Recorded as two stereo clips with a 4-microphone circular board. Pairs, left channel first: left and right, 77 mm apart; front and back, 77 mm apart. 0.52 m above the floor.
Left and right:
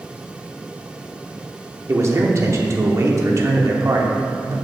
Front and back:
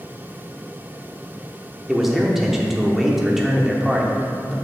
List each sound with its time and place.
1.9 s a man speaking: 95° right, 0.8 m